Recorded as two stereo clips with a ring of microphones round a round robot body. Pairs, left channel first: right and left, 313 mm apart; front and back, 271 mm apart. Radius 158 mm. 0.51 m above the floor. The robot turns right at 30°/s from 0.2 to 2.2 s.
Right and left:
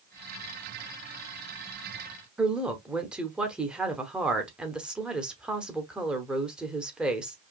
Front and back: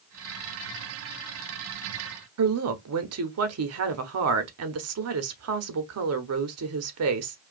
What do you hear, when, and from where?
2.4 s a woman speaking: 175° left, 1.0 m